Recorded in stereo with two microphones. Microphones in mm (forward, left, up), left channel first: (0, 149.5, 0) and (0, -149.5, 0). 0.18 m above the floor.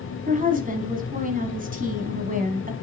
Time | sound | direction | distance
0.3 | a woman speaking | 25° right (ahead or behind) | 1.3 m